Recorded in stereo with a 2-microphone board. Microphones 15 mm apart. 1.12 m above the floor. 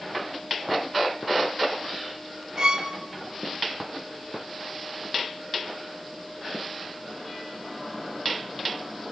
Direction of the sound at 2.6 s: 50° right (ahead or behind).